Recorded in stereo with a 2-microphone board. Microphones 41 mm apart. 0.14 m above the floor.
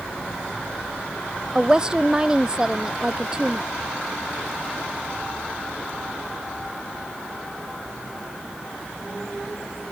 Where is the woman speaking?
20° right (ahead or behind).